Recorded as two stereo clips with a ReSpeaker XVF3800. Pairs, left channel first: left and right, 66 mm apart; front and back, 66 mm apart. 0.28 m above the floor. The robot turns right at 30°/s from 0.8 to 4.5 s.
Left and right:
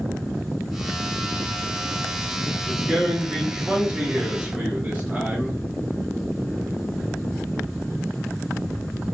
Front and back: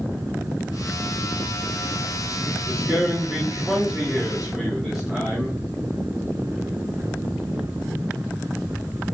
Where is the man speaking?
175° right, 1.3 m; by 5.6 s 120° right, 1.3 m.